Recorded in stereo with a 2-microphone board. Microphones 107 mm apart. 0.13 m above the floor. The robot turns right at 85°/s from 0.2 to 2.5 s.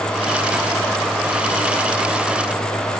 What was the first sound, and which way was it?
Only background noise.